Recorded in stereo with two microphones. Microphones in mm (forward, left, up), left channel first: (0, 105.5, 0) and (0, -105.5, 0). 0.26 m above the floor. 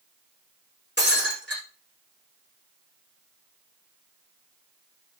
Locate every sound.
1.0 s breaking glass: 55° left (ahead or behind), 8.5 m